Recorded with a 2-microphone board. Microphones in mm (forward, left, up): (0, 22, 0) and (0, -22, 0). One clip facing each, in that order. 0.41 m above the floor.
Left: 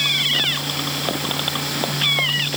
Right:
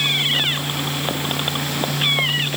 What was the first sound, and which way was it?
Only background noise.